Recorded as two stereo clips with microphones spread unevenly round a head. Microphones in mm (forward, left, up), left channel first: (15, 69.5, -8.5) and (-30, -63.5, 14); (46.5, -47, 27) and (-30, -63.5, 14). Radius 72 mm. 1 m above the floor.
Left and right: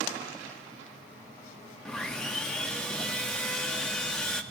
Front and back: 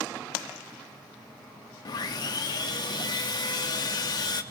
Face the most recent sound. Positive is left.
turn(degrees=-5)